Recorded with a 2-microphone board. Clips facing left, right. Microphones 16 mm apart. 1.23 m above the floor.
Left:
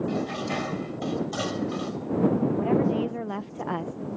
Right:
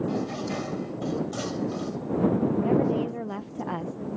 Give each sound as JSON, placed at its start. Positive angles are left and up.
{"t": 0.1, "sound": "dishes clattering", "side_deg": 25}
{"t": 2.6, "sound": "a woman speaking", "side_deg": 15}